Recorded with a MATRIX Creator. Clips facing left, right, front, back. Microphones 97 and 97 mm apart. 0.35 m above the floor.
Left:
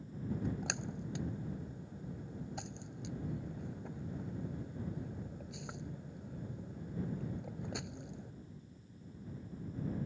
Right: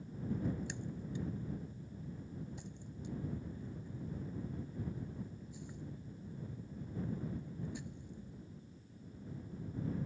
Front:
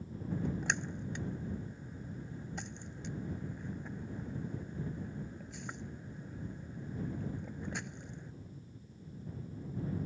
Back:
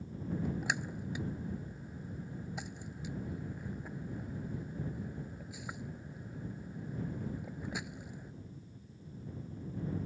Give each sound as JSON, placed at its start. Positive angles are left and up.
{"t": 0.3, "sound": "a splash", "azimuth_deg": 95}